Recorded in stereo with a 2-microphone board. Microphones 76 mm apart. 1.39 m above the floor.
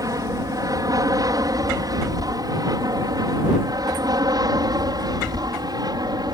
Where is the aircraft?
50° right (ahead or behind); by 6.3 s 60° right (ahead or behind).